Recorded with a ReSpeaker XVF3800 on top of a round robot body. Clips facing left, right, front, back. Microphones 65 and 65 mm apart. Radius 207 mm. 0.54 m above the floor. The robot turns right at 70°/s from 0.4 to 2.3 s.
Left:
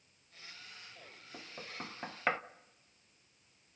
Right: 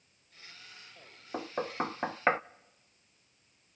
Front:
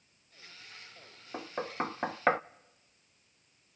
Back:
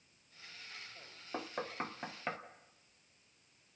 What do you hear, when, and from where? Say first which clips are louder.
1.3 s knocking: right 13 dB, front 5 dB; 95° right, 0.5 m; by 2.4 s 25° right, 0.5 m